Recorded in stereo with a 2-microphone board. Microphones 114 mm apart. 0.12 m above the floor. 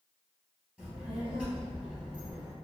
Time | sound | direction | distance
0.8 | a child speaking | 5° right (ahead or behind) | 1.8 m